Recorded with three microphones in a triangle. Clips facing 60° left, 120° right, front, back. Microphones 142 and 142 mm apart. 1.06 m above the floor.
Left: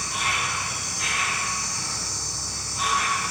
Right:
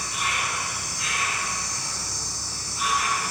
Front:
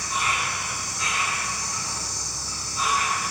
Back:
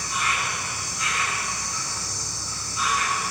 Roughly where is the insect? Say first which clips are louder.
Left 1 dB, front 1 dB; ahead left.